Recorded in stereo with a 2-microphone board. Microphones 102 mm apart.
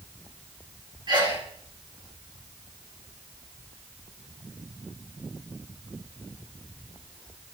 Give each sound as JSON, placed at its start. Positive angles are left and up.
{"t": 1.1, "sound": "a sneeze", "side_deg": -45, "distance_m": 1.6}